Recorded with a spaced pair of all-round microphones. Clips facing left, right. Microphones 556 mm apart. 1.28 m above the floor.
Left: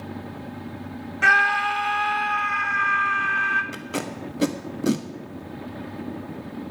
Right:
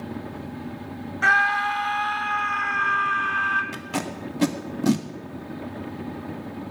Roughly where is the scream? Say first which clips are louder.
Even; left.